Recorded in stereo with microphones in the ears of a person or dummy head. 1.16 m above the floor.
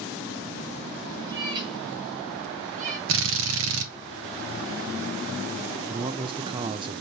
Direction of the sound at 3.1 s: 70° right (ahead or behind).